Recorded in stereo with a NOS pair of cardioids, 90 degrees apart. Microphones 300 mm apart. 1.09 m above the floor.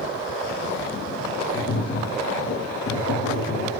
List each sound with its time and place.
1.5 s tapping: 45° left, 1.4 m